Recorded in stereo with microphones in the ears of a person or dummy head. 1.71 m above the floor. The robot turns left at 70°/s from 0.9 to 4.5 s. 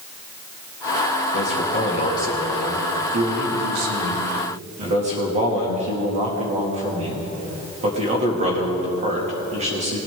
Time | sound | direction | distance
1.3 | a man speaking | 80° left | 2.5 m